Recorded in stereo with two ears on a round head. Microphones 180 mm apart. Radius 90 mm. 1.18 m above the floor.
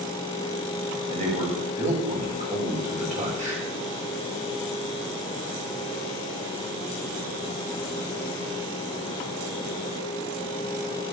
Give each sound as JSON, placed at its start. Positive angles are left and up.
{"t": 1.1, "sound": "a man speaking", "side_deg": -40, "distance_m": 6.0}